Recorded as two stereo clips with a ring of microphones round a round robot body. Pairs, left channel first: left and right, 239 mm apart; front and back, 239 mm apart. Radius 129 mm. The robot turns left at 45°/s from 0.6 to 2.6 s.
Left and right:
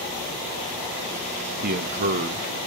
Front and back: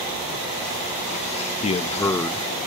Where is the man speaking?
50° right, 0.6 m; by 2.5 s 90° right, 0.6 m.